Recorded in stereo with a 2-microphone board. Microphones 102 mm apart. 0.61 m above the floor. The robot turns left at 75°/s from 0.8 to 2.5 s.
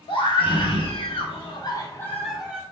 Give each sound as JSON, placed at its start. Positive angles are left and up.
{"t": 0.1, "sound": "a scream", "azimuth_deg": 115, "distance_m": 1.3}